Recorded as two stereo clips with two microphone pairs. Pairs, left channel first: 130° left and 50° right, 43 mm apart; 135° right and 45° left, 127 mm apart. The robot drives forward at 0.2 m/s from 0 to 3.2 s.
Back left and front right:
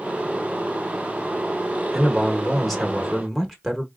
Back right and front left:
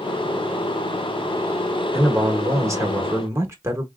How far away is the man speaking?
About 1.1 m.